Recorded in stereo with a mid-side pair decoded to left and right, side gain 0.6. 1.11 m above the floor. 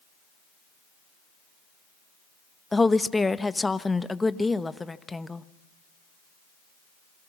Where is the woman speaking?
15° left, 1.0 m.